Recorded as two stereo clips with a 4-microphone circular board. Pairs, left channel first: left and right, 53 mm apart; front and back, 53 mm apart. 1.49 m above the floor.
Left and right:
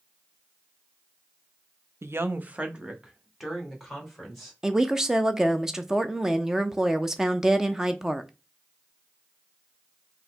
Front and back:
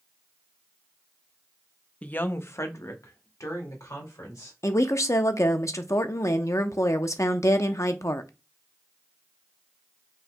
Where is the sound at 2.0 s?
65° right, 0.5 m; by 4.5 s straight ahead, 2 m.